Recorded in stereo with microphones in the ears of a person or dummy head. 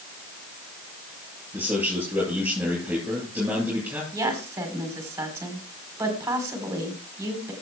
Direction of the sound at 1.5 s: 10° right (ahead or behind).